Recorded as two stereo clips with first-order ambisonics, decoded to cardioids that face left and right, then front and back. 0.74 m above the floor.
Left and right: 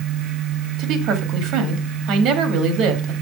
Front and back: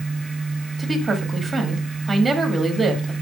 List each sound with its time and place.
0.8 s a woman speaking: 105° right, 1.5 m